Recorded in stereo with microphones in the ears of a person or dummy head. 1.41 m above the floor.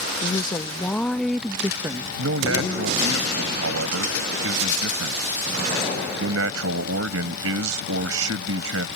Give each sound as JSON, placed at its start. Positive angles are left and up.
{"t": 0.2, "sound": "a woman speaking", "side_deg": 20}
{"t": 2.2, "sound": "a man speaking", "side_deg": -80}